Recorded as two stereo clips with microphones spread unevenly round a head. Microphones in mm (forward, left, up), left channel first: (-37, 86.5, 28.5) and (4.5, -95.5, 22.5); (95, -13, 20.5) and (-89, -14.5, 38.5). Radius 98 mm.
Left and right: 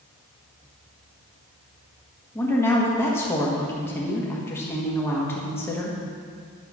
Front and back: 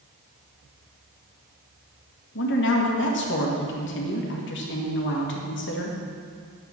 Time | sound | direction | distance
2.4 | a woman speaking | 25° left | 1.7 m